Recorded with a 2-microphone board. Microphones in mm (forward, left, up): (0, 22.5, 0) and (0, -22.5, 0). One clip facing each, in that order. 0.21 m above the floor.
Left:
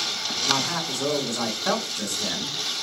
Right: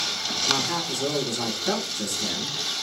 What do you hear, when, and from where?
0.5 s a man speaking: 55° left (ahead or behind), 2.5 m